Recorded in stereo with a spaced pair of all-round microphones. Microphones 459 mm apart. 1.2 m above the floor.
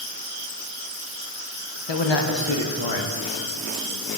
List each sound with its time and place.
1.9 s a man speaking: 65° left (ahead or behind), 1.1 m